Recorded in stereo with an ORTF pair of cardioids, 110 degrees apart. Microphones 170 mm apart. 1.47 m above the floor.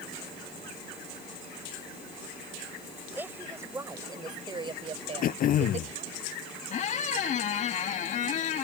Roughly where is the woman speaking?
Ahead.